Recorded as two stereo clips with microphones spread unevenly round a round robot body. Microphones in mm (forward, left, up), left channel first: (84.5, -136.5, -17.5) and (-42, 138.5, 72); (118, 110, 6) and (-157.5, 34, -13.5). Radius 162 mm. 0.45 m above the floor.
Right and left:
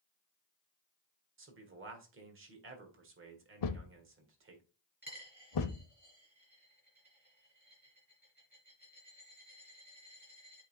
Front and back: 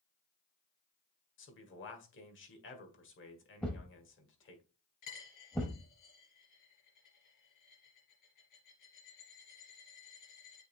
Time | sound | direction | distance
1.4 | a man speaking | 60° left | 2.0 m
3.6 | a thud | 70° right | 0.7 m
5.0 | a dropped coin | 30° left | 4.5 m